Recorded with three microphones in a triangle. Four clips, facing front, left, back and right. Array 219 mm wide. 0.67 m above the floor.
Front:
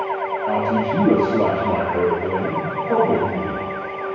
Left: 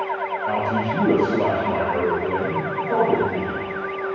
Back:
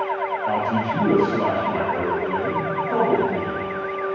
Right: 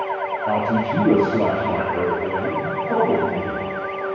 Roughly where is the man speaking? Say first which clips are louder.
Right 2 dB, front 4 dB; right.